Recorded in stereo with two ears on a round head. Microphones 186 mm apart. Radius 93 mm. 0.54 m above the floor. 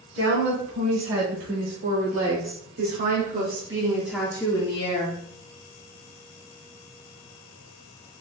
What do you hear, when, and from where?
0.1 s a woman speaking: 75° right (ahead or behind), 3 m; by 5.2 s 40° left (ahead or behind), 1.1 m